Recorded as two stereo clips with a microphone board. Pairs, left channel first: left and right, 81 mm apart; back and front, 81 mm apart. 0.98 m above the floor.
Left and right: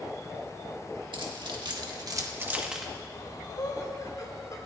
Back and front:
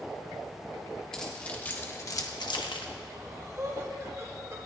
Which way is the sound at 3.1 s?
50° left.